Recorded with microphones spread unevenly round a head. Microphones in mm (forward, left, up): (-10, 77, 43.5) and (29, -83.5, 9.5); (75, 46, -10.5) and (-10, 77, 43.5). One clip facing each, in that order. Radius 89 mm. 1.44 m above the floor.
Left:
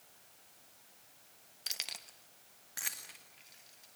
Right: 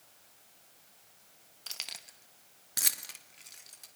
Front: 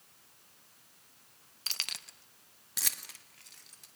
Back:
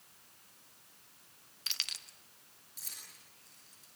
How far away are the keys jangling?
About 1.1 m.